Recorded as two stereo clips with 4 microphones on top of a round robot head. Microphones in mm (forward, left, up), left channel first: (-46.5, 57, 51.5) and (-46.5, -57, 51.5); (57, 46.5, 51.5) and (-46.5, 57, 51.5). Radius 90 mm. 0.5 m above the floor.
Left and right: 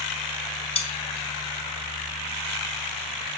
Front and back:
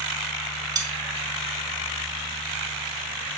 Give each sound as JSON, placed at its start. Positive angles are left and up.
{"t": 0.8, "sound": "cutlery clinking", "azimuth_deg": 120, "distance_m": 4.0}